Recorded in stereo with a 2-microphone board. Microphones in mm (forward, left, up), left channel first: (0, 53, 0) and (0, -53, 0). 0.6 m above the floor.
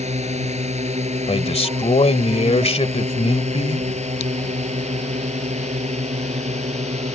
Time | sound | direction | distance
0.0 | a drone | 85° right | ?
1.3 | a man speaking | 70° left (ahead or behind) | ?